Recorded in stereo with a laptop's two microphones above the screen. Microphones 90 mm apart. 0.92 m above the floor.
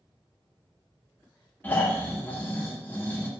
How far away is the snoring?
About 1.5 m.